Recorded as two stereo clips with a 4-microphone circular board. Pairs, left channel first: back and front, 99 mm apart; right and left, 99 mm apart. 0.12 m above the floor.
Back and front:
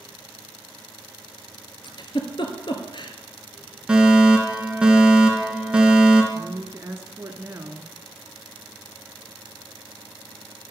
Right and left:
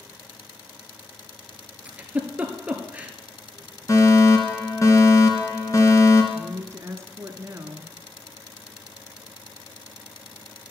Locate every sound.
1.9 s a giggle: 165° left, 1.6 m
3.9 s a fire alarm: 75° right, 2.5 m
6.3 s a woman speaking: 45° left, 1.4 m